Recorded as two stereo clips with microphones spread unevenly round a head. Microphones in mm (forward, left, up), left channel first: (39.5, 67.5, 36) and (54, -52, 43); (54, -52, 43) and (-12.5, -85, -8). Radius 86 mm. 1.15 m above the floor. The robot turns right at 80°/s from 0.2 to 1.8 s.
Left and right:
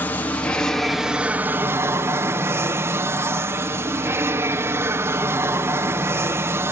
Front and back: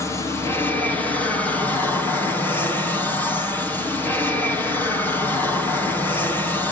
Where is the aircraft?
125° left; by 6.7 s 110° right.